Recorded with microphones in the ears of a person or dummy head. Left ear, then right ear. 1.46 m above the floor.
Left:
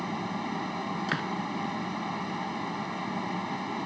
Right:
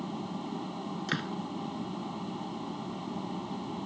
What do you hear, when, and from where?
0.0 s a fan: 65° left (ahead or behind)
1.1 s a door slam: 20° left (ahead or behind)